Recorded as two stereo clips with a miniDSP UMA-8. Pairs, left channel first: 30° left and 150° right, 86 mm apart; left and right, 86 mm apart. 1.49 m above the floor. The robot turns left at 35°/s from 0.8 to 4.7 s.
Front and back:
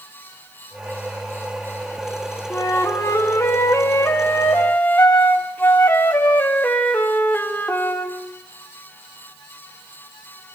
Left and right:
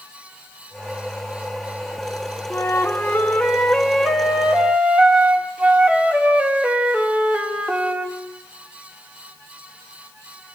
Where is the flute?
50° left, 1.2 m; by 8.2 s 30° right, 1.2 m.